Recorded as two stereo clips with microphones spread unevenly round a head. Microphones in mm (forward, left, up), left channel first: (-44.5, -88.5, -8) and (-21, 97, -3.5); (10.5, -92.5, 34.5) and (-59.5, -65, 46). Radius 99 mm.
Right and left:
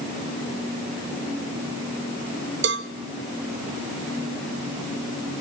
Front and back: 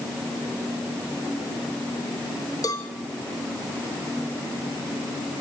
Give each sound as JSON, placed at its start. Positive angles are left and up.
{"t": 2.6, "sound": "a cowbell", "azimuth_deg": 45, "distance_m": 1.2}